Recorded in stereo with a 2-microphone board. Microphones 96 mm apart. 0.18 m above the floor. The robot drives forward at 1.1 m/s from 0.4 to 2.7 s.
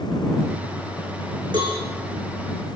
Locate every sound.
1.5 s a cowbell: 55° right (ahead or behind), 8.5 m